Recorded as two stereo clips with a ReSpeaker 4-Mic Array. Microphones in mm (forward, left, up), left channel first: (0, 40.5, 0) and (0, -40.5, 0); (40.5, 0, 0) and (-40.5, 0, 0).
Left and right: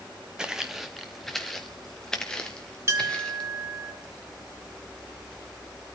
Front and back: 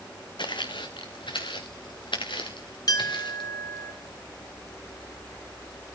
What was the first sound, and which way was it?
Footsteps, 10° right.